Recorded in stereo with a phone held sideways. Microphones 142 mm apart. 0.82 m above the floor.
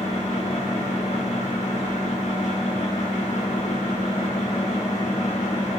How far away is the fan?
About 1.6 m.